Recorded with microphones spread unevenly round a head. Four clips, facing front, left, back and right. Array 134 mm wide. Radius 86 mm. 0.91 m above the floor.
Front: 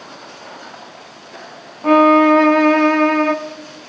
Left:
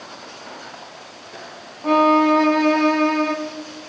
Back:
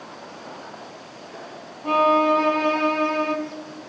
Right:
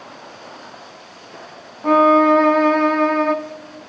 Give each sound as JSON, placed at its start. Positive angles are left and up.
{"t": 1.8, "sound": "a violin", "azimuth_deg": -5, "distance_m": 1.4}